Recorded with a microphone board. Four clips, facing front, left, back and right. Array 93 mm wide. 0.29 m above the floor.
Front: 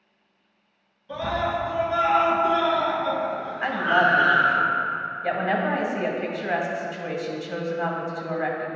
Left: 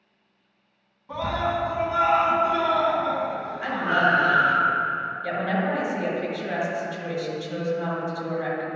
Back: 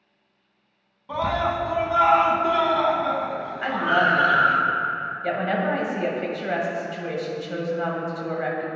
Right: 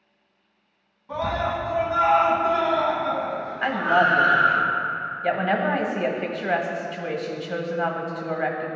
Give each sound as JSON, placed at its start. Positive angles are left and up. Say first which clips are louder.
{"t": 1.1, "sound": "a scream", "louder": "even, back 2 dB", "azimuth_deg": 180, "distance_m": 1.9}
{"t": 3.6, "sound": "a woman speaking", "louder": "right 3 dB, even", "azimuth_deg": -90, "distance_m": 1.8}